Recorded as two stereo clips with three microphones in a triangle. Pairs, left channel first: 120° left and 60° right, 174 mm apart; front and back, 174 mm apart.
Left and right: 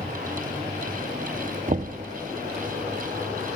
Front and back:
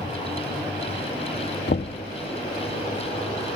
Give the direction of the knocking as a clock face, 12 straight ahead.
1 o'clock.